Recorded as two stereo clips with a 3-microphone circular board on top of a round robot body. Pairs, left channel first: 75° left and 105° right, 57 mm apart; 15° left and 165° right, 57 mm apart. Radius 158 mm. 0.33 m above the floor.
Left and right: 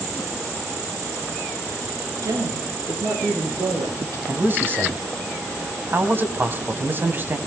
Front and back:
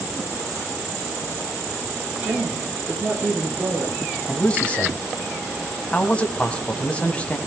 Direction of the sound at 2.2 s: 95° right.